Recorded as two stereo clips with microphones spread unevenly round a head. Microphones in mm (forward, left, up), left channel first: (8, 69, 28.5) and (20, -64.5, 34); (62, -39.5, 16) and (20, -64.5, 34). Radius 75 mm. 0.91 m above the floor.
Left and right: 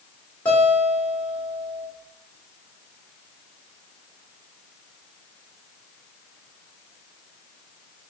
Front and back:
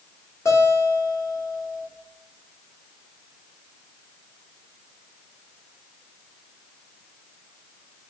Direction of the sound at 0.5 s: 15° left.